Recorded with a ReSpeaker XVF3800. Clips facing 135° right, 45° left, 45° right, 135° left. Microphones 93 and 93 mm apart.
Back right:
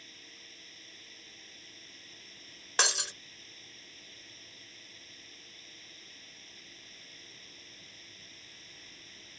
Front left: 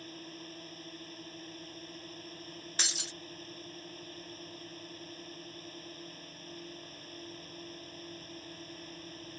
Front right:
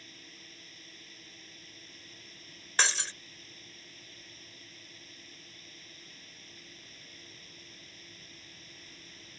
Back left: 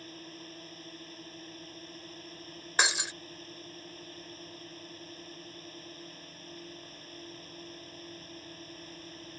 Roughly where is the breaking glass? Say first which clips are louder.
Back right 10 dB, back left 1 dB; behind right.